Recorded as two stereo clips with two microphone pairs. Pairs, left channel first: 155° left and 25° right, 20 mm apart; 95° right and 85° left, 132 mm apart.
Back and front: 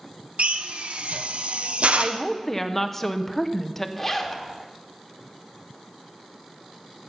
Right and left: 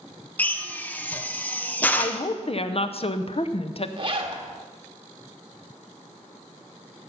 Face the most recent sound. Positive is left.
turn(degrees=90)